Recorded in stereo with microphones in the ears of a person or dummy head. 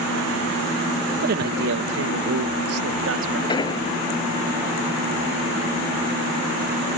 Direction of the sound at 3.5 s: 25° left (ahead or behind).